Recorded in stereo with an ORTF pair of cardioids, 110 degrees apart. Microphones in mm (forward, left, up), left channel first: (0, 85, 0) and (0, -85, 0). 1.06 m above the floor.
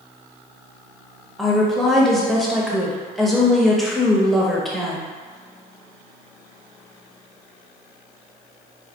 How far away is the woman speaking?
About 0.9 m.